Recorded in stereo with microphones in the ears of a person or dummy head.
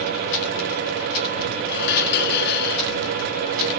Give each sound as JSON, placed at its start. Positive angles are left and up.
{"t": 1.7, "sound": "dishes clattering", "side_deg": 55}